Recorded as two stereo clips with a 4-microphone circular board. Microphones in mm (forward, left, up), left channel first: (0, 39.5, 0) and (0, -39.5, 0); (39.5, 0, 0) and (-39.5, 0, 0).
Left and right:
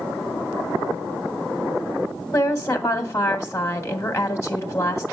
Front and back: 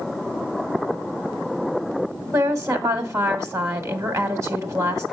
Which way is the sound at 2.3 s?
140° left.